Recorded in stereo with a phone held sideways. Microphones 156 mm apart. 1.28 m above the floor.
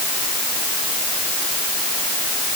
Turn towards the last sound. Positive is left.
No sound to turn to.